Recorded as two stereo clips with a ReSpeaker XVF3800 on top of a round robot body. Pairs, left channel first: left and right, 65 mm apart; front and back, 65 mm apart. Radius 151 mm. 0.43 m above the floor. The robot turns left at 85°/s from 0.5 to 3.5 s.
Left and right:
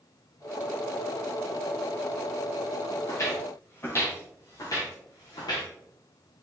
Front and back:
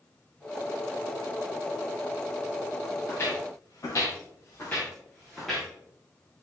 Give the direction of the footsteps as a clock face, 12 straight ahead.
10 o'clock.